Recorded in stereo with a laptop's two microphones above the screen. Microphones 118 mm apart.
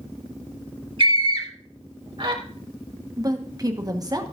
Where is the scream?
50° right (ahead or behind), 4 m.